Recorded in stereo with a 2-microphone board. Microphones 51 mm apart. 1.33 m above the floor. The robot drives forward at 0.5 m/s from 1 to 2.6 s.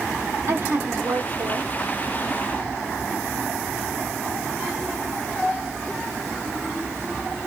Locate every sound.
0.5 s a woman speaking: 60° right (ahead or behind), 1.4 m; by 1.7 s 75° right (ahead or behind), 1.2 m